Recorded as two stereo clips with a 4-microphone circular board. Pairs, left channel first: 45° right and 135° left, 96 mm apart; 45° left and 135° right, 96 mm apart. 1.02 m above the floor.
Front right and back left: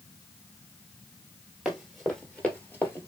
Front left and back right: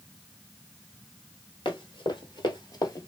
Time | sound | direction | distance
1.6 | running footsteps | 50° left | 1.5 m